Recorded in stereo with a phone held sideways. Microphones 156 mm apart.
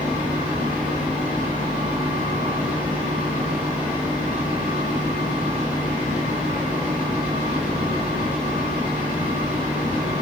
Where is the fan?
10° right (ahead or behind), 1.6 m.